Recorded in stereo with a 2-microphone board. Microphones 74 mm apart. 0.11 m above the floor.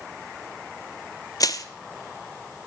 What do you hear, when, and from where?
1.4 s crushing: 55° left (ahead or behind), 0.5 m